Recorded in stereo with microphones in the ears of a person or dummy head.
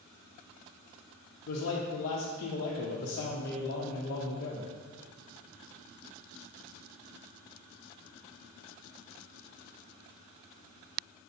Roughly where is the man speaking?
Left.